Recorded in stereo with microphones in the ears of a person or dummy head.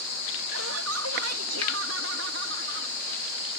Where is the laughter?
80° right; by 3.0 s 60° right (ahead or behind).